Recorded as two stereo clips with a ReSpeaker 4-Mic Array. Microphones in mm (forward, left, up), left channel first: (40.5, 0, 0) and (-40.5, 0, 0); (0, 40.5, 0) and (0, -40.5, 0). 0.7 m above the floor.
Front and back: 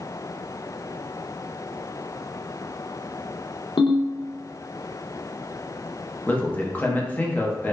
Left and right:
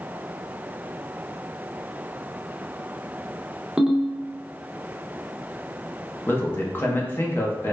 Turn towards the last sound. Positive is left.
turn(degrees=55)